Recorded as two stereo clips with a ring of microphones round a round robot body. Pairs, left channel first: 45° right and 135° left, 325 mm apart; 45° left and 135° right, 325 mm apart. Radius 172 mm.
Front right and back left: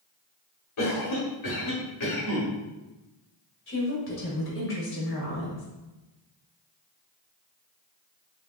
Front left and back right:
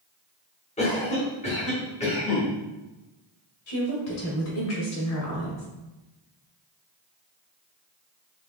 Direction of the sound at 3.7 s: 5° left.